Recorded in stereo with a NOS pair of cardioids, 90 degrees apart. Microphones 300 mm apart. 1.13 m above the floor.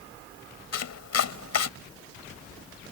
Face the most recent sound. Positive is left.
turn(degrees=60)